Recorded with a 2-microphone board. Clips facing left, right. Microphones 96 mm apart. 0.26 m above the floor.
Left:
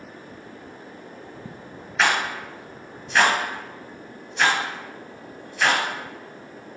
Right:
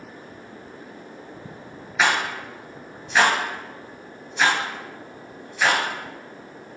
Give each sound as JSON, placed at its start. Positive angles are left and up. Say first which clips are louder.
{"t": 2.0, "sound": "a rattle", "louder": "even", "side_deg": 0, "distance_m": 0.9}